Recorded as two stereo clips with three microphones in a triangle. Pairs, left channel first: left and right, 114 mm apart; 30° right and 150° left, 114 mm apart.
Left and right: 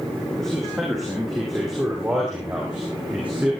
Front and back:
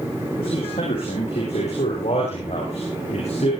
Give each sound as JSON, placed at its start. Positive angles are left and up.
{"t": 0.4, "sound": "a man speaking", "azimuth_deg": 5, "distance_m": 6.0}